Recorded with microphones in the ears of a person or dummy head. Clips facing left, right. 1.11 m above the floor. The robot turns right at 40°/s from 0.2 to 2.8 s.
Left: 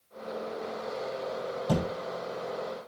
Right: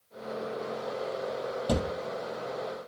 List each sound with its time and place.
1.7 s a thud: 40° right (ahead or behind), 4.5 m; by 1.9 s 30° right (ahead or behind), 4.5 m